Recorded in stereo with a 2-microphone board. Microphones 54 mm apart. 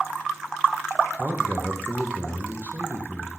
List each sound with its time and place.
1.2 s a man speaking: 35° right (ahead or behind), 0.9 m